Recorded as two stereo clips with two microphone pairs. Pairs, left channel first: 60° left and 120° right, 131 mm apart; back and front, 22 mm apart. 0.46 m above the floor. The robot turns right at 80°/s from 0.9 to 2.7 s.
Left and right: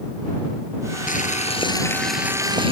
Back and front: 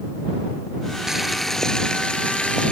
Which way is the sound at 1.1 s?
65° left.